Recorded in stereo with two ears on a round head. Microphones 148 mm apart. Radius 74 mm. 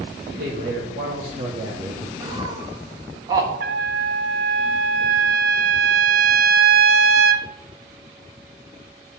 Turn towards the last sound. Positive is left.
turn(degrees=-60)  # may be behind; listen again after turning